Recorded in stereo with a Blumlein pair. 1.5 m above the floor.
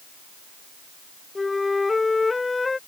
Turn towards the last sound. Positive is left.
turn(degrees=10)